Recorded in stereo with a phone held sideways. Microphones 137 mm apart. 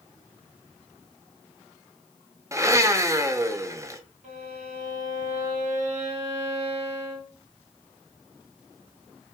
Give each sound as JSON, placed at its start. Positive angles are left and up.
{"t": 2.5, "sound": "a blender", "side_deg": -20, "distance_m": 0.5}
{"t": 4.2, "sound": "a violin", "side_deg": -60, "distance_m": 2.5}